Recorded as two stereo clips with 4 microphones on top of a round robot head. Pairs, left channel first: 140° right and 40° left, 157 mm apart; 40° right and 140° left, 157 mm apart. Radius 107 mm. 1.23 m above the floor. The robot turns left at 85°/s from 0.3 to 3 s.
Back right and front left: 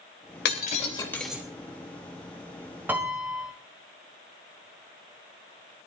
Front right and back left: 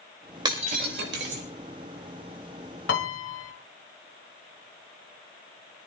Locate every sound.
0.5 s breaking glass: 160° right, 3.5 m; by 1.4 s 120° left, 3.5 m
2.9 s a piano: 35° right, 1.6 m; by 3.5 s 45° right, 1.6 m